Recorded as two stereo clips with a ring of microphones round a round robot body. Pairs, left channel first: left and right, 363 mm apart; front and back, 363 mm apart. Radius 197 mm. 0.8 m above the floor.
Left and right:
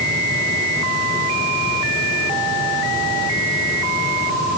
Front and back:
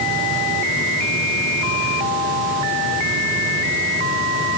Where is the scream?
No scream in this recording.